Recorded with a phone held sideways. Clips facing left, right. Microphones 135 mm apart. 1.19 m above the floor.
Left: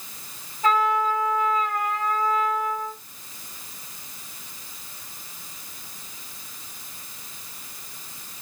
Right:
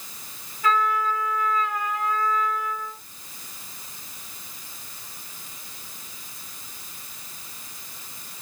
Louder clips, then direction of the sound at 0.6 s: Left 2 dB; 30° left (ahead or behind).